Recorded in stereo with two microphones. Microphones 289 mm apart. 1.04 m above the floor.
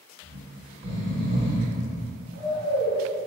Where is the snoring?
70° right (ahead or behind), 1.9 m.